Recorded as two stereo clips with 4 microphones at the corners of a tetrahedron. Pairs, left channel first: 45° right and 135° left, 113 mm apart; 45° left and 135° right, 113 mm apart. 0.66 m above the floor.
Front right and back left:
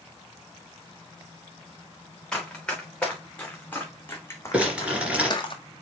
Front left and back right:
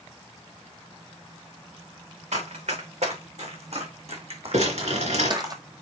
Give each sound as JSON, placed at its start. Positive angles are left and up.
{"t": 2.3, "sound": "running footsteps", "azimuth_deg": -130, "distance_m": 4.0}
{"t": 4.5, "sound": "crumpling", "azimuth_deg": -145, "distance_m": 3.0}